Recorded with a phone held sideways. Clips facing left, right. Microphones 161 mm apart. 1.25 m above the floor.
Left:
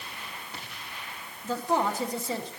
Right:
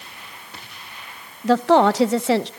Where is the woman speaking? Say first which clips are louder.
Right 12 dB; 80° right, 0.7 m.